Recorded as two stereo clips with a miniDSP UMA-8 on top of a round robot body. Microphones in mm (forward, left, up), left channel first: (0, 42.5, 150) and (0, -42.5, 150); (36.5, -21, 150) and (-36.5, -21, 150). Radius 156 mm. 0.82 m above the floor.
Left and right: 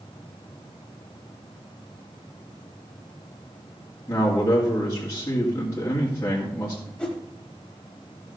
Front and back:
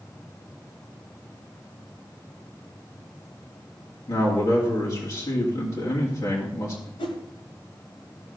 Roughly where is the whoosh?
Ahead.